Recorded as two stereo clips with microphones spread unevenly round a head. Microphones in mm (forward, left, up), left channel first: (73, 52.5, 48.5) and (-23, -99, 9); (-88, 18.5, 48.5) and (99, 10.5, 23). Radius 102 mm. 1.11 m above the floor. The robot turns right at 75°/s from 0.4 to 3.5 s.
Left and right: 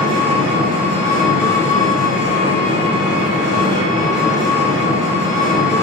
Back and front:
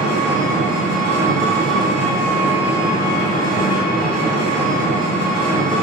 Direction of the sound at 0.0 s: 100° right.